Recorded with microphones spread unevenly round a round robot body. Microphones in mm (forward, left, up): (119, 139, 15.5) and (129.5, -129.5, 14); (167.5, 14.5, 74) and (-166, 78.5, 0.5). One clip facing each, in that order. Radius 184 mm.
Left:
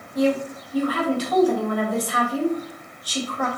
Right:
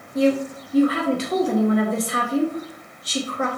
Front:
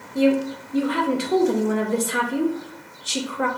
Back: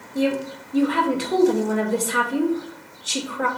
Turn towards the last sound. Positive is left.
turn(degrees=-120)